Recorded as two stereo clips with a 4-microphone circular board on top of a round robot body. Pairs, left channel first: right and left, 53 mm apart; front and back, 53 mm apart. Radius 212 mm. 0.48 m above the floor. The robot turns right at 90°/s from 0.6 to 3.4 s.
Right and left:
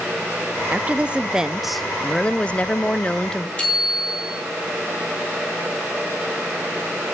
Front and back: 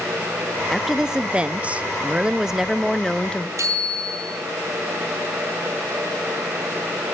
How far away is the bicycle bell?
About 6.5 m.